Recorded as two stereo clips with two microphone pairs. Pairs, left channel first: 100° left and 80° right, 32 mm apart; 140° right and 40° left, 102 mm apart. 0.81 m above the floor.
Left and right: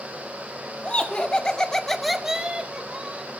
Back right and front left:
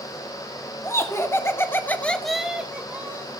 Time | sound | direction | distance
0.8 | laughter | 160° left | 2 m